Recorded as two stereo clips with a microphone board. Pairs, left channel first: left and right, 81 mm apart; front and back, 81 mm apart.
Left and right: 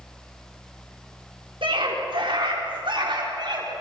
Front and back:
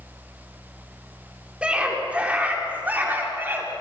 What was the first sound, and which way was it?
A scream, 105° right.